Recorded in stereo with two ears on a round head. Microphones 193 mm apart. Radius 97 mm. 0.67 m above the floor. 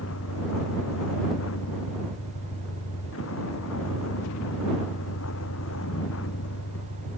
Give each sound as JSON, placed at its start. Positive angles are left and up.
{"t": 0.0, "sound": "a vehicle", "side_deg": 70}